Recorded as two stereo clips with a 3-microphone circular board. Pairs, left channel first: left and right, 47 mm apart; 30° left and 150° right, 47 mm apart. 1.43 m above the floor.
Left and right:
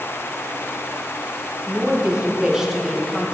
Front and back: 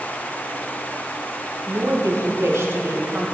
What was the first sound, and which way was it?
A woman speaking, 150° right.